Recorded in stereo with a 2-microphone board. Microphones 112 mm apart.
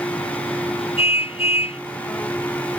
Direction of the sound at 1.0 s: 60° left (ahead or behind).